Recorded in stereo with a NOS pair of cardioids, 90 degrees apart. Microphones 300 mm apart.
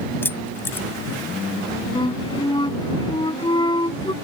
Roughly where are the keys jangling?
Ahead.